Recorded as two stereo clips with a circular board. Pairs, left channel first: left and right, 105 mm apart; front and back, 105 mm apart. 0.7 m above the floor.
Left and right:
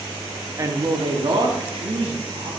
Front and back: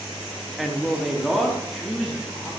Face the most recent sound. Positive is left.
turn(degrees=-90)